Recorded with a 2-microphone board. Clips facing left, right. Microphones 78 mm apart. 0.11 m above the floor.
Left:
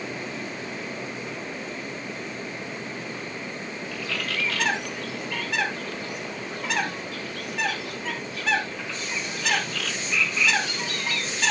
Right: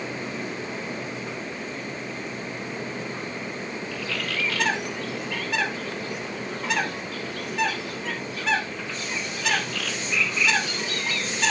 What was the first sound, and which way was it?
A bird, centre (ahead or behind).